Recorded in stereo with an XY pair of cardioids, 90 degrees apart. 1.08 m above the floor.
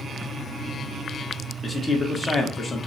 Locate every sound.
1.6 s a man speaking: 40° left, 1.0 m